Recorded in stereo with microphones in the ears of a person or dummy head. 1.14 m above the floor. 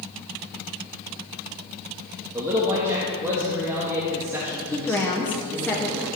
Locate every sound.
2.3 s a man speaking: 10° right (ahead or behind), 1.5 m
4.7 s a woman speaking: 5° left (ahead or behind), 0.7 m